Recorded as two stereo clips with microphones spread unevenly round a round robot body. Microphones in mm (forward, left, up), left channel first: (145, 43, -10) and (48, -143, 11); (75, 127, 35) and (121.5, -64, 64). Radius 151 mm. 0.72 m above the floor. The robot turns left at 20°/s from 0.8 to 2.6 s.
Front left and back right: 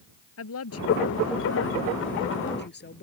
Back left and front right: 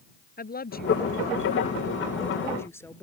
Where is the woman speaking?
60° left; by 3.0 s 25° left.